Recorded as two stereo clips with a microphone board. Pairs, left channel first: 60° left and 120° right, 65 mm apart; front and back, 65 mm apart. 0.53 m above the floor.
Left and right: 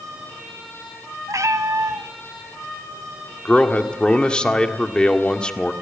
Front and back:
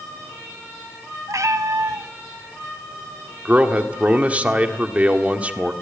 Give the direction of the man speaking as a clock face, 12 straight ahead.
8 o'clock.